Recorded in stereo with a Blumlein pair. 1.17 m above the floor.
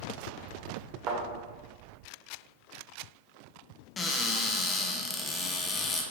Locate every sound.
1.1 s a thud: 35° right, 1.4 m
4.0 s a cupboard door: 20° left, 0.6 m